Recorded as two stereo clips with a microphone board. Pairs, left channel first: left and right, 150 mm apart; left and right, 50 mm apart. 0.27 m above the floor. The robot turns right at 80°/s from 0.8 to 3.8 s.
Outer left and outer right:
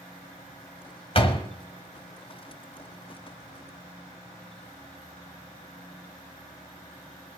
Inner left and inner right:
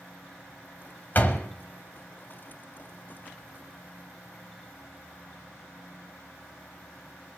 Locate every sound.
1.1 s a door slam: 40° left (ahead or behind), 1.2 m; by 1.5 s 30° left (ahead or behind), 1.2 m